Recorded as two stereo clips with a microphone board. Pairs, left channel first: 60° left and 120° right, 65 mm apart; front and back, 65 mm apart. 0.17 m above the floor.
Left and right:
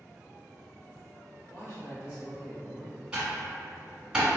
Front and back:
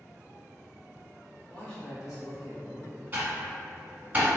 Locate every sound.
1.5 s a man speaking: 50° left, 1.4 m; by 3.0 s 120° left, 2.5 m
3.1 s typing on a keyboard: 175° left, 1.1 m